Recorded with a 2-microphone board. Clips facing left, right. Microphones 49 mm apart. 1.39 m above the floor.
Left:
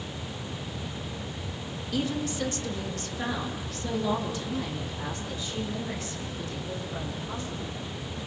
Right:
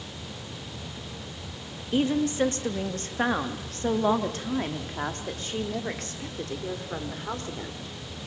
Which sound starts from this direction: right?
A woman speaking, at 1.9 s.